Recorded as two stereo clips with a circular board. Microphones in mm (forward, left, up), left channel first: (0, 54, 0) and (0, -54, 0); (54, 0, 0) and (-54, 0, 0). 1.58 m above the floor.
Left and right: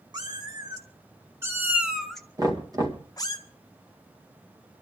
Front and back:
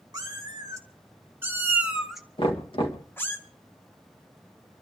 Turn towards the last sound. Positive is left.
turn(degrees=-35)